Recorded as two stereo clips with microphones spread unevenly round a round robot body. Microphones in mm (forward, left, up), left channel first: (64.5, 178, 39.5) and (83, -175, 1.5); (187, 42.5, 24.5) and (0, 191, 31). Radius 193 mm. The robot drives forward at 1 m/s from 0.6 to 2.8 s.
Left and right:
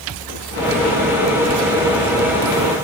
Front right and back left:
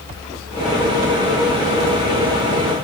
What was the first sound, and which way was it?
Only background noise.